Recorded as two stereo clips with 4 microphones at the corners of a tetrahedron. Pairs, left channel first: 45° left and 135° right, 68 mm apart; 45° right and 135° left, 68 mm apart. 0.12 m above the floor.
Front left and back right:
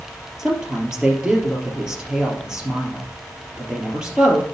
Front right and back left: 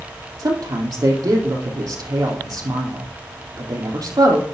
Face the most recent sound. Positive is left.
turn(degrees=145)